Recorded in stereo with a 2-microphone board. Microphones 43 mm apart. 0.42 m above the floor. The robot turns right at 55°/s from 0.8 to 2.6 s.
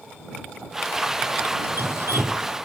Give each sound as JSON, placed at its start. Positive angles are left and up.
{"t": 1.6, "sound": "dripping", "azimuth_deg": -125}